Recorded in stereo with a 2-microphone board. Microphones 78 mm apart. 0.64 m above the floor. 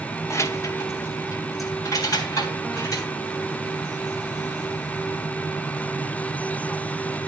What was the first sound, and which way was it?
Keys jangling, 35° left (ahead or behind).